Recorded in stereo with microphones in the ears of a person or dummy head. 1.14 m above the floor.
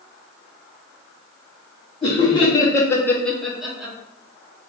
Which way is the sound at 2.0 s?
25° left (ahead or behind).